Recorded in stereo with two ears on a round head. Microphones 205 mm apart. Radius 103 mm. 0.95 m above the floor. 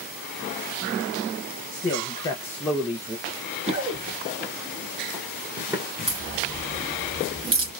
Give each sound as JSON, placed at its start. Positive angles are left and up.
{"t": 1.7, "sound": "a man speaking", "side_deg": 30, "distance_m": 0.9}
{"t": 3.3, "sound": "running footsteps", "side_deg": -30, "distance_m": 1.0}
{"t": 6.1, "sound": "a crack", "side_deg": -25, "distance_m": 3.0}